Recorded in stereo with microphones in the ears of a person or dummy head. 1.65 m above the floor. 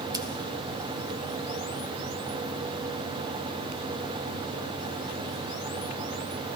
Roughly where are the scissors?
Centre.